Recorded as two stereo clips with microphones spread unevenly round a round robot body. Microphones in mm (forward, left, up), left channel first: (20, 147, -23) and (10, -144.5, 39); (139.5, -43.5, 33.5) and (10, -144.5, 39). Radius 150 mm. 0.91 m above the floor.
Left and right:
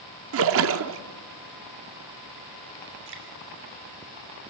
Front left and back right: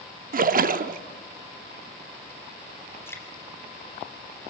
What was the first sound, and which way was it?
A splash, 120° right.